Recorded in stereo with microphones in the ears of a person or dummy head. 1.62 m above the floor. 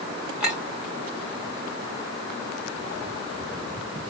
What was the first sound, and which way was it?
A clink, centre (ahead or behind).